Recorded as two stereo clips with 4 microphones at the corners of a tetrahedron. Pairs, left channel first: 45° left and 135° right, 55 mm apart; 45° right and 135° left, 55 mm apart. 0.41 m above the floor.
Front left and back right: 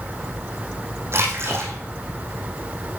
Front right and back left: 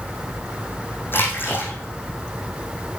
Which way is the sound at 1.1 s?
95° right.